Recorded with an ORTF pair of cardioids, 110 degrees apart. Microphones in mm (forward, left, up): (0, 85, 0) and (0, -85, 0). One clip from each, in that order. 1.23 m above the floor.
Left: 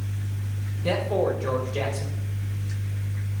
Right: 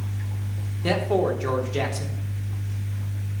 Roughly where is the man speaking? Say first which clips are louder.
Right 1 dB; ahead right.